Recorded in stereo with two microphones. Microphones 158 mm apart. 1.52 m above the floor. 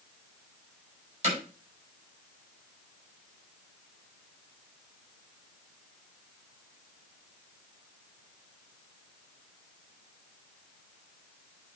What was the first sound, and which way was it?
Hammering, 50° right (ahead or behind).